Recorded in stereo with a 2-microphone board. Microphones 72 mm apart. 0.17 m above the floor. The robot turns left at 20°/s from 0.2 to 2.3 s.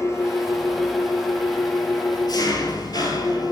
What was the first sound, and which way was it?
An engine running, 130° left.